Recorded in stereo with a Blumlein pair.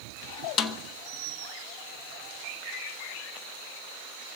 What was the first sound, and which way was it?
A snare drum, 25° left.